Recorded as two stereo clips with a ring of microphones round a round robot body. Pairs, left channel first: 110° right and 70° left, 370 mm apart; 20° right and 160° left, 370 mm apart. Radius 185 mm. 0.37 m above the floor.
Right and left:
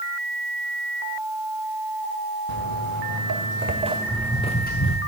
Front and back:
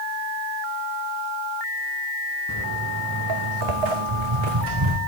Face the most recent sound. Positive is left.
turn(degrees=-170)